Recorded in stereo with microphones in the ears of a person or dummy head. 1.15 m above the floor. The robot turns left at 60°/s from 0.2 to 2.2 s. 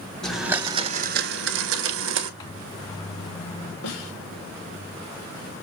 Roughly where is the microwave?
Centre.